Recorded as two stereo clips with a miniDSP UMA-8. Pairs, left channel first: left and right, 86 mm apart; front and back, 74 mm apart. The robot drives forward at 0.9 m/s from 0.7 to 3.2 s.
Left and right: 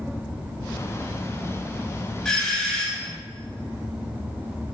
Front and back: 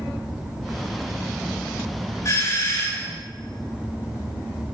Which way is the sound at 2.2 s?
10° left.